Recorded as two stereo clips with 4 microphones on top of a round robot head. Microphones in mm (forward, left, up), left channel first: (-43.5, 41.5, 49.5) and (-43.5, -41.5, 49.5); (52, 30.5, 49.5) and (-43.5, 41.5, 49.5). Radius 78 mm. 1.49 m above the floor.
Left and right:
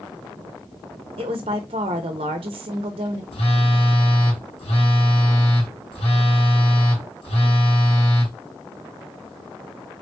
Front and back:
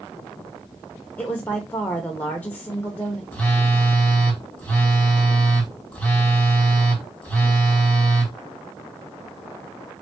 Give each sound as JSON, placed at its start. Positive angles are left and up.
{"t": 1.2, "sound": "a woman speaking", "azimuth_deg": -85, "distance_m": 0.7}
{"t": 3.3, "sound": "a phone buzzing", "azimuth_deg": 70, "distance_m": 1.9}